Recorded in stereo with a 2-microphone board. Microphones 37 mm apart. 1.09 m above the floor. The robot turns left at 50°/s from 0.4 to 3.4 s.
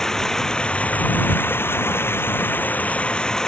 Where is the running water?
165° left; by 3.5 s 15° left.